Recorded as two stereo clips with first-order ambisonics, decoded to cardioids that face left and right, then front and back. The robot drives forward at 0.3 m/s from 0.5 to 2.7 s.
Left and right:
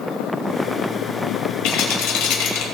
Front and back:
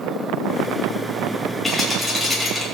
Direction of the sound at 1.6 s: 85° left.